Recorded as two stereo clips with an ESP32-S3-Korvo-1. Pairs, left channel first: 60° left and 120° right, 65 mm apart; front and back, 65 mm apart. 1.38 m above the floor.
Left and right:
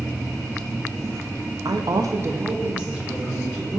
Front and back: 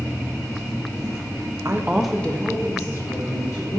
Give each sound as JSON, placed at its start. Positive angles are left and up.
{"t": 1.6, "sound": "a woman speaking", "azimuth_deg": -135, "distance_m": 0.6}